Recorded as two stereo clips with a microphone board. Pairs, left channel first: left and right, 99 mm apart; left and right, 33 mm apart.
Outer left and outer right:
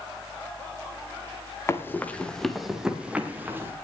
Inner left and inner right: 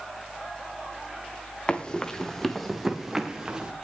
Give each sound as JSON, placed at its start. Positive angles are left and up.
{"t": 1.7, "sound": "running footsteps", "side_deg": 25, "distance_m": 2.5}